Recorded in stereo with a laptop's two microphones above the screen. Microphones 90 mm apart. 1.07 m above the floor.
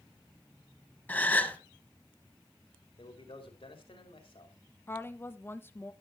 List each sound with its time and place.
1.1 s a gasp: 15° left (ahead or behind), 1.2 m
3.0 s a man speaking: 80° left, 3 m
4.9 s a woman speaking: 25° left (ahead or behind), 1.2 m